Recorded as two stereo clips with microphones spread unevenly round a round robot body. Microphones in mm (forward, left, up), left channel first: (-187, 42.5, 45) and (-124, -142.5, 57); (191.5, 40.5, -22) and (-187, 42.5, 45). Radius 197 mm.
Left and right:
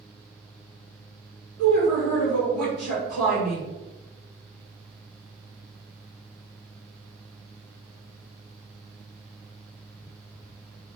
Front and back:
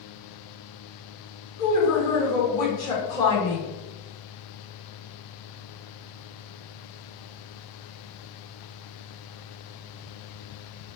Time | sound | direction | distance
1.6 | a woman speaking | 25° left | 1.9 m